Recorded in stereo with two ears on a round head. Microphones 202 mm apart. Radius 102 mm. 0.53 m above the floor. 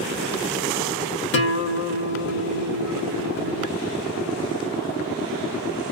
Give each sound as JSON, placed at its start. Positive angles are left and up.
{"t": 1.3, "sound": "a guitar", "side_deg": 50, "distance_m": 0.8}